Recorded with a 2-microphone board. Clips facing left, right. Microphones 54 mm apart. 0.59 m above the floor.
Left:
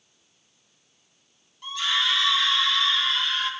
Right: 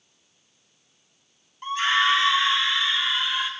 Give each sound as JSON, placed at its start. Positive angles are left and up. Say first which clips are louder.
{"t": 1.6, "sound": "a scream", "louder": "right 5 dB", "side_deg": -40, "distance_m": 1.4}